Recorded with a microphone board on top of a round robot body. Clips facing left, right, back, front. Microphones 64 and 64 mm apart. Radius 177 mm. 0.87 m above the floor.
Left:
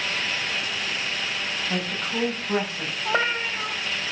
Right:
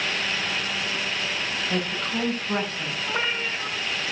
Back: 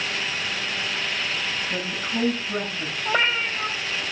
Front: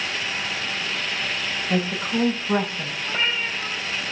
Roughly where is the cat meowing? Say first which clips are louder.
Left 4 dB, back 3 dB; behind left.